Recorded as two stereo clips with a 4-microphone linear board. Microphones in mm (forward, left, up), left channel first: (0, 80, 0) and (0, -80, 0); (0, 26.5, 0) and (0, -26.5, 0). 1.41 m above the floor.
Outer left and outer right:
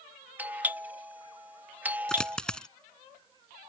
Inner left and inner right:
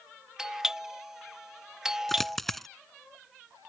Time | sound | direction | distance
0.4 | a doorbell | 10° right (ahead or behind) | ?
2.1 | a dropped coin | 5° left (ahead or behind) | ?